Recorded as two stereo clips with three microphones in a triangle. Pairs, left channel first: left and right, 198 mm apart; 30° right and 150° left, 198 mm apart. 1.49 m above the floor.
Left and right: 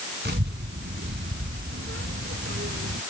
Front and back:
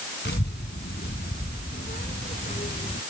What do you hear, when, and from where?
0.2 s a child speaking: 60° right; by 3.0 s 80° right